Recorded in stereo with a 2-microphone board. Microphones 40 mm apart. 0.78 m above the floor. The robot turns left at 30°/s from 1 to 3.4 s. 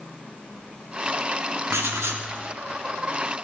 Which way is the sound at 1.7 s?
85° right.